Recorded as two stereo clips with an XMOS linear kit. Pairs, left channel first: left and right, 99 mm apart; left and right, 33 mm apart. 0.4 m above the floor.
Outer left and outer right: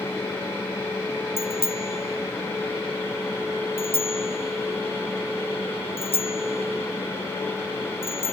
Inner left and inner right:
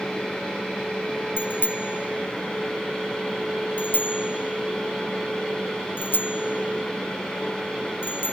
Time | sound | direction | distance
1.4 | a bicycle bell | 80° left | ?